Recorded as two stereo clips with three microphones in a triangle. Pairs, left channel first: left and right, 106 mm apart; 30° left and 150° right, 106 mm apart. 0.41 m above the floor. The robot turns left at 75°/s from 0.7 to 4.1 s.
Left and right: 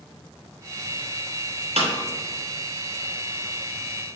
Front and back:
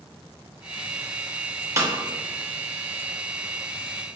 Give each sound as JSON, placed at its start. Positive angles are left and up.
{"t": 1.8, "sound": "a snare drum", "azimuth_deg": -90, "distance_m": 0.6}